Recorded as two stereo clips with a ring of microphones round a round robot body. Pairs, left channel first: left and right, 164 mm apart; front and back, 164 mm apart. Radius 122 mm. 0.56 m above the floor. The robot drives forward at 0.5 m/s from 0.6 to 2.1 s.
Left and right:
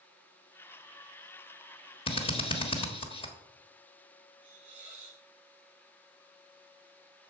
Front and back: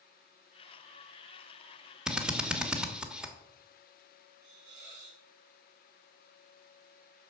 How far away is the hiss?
About 3 m.